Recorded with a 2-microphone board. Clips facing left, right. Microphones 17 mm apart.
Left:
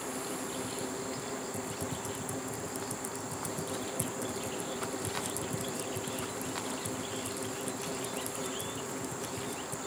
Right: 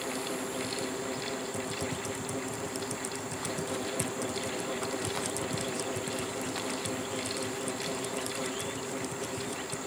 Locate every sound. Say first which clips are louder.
1.5 s typing on a keyboard: right 3 dB; 30° right (ahead or behind)